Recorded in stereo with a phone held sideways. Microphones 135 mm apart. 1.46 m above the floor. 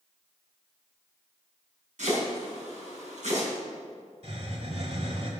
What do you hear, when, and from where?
2.0 s chopping: 80° right, 4.5 m
4.2 s a hiss: 60° right (ahead or behind), 2 m